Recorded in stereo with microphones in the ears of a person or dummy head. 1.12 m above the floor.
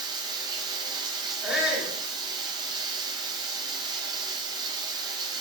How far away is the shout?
About 3 m.